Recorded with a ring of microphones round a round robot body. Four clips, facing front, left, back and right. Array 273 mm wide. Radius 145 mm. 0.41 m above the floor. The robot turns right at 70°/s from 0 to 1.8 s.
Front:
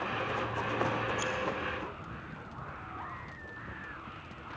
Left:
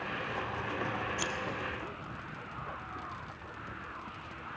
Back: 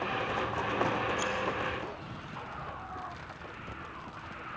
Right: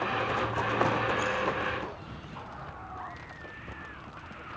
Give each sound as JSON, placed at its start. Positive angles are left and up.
{"t": 1.2, "sound": "scissors", "azimuth_deg": 85, "distance_m": 2.0}